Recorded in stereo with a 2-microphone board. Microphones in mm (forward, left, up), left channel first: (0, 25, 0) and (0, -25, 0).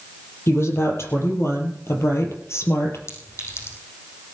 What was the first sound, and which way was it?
A woman speaking, 60° left (ahead or behind).